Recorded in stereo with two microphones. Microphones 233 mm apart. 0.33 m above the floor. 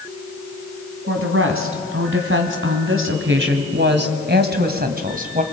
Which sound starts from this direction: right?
A woman speaking, at 1.1 s.